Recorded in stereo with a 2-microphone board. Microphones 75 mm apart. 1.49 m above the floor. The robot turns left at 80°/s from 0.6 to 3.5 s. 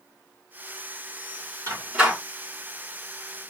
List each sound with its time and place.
1.7 s a door slam: 40° right (ahead or behind), 3 m; by 2.2 s centre (ahead or behind), 3 m